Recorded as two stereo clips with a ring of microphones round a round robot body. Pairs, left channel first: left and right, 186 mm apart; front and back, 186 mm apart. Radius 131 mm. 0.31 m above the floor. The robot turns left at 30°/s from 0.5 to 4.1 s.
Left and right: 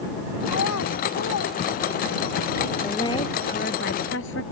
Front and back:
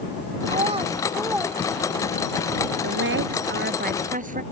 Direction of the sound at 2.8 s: 170° left.